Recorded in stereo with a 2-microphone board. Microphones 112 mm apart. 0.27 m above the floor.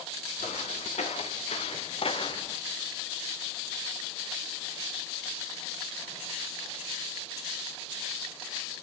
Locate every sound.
0.4 s footsteps: 75° left (ahead or behind), 4.5 m; by 2.6 s 35° left (ahead or behind), 1.8 m